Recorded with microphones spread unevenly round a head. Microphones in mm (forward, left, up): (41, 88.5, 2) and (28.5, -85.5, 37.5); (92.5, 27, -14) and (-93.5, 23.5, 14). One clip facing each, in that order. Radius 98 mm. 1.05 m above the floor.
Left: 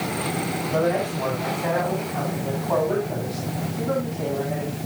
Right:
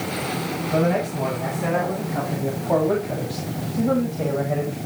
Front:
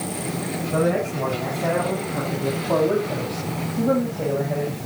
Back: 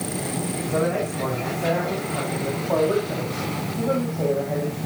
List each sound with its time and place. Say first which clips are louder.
0.7 s a man speaking: right 1 dB, front 2 dB; 55° right, 8 m; by 4.8 s 80° right, 5.5 m